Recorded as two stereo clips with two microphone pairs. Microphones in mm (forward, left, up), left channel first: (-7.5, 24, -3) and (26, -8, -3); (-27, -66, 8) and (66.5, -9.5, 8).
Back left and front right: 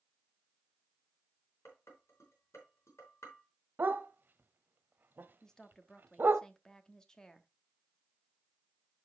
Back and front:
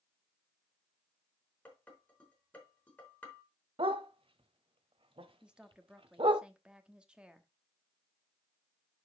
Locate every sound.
1.6 s dishes clattering: 140° left, 4 m
3.8 s a dog barking: 5° right, 0.8 m
5.4 s a woman speaking: 95° left, 1.0 m